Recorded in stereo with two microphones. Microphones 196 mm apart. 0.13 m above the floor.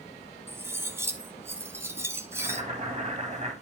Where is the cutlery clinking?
15° right (ahead or behind), 0.9 m.